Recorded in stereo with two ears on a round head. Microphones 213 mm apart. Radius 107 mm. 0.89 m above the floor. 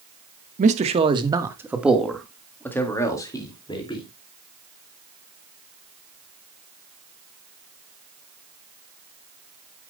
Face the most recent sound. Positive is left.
turn(degrees=20)  # may be behind; listen again after turning